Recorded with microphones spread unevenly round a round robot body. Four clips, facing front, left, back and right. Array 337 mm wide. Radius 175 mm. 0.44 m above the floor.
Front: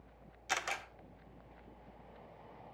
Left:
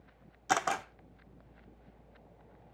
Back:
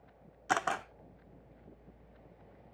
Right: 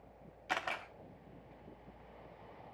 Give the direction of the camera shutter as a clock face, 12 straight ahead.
8 o'clock.